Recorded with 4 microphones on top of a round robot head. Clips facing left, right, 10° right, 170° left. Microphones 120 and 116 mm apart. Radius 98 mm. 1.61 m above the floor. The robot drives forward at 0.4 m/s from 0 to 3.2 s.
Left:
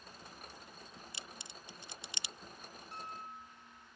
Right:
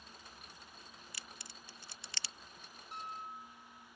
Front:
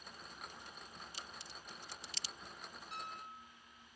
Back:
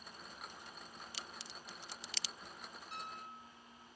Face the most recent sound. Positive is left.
turn(degrees=-15)